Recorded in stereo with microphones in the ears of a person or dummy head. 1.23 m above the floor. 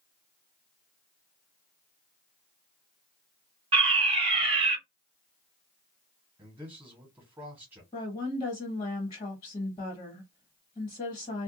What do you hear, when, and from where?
3.7 s a fire alarm: 30° right (ahead or behind), 1.3 m
6.4 s a man speaking: 10° right (ahead or behind), 1.2 m
7.9 s a woman speaking: 30° left (ahead or behind), 1.3 m